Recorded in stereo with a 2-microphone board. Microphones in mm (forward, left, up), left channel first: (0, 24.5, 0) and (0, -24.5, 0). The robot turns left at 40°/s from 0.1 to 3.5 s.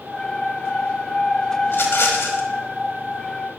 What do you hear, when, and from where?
1.6 s a rattle: 115° left, 1.5 m; by 2.5 s 80° left, 1.5 m